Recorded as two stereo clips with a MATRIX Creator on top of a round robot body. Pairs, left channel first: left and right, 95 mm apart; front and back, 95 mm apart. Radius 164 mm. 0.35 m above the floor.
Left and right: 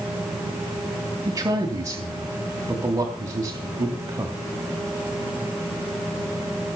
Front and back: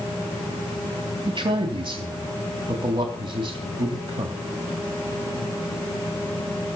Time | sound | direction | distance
1.3 | a man speaking | 145° right | 3.5 m